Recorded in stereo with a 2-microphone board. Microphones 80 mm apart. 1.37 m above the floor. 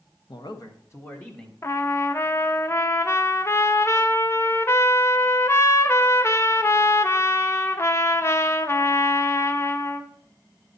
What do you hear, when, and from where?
0.3 s a man speaking: 70° left (ahead or behind), 0.9 m; by 1.5 s 15° left (ahead or behind), 1.5 m
1.6 s a trumpet: 35° left (ahead or behind), 0.5 m